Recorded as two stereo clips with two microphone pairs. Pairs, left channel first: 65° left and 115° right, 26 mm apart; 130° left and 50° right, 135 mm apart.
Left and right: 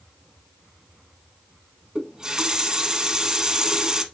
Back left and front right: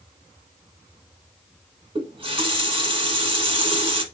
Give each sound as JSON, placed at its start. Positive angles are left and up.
{"t": 1.9, "sound": "a running tap", "azimuth_deg": -65, "distance_m": 1.1}